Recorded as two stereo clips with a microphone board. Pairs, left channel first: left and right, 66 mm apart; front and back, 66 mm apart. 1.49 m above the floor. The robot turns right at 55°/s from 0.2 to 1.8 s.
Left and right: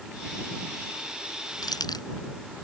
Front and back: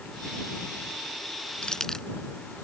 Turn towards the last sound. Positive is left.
turn(degrees=80)